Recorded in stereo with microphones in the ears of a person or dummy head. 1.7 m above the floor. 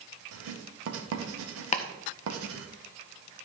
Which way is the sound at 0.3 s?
80° right.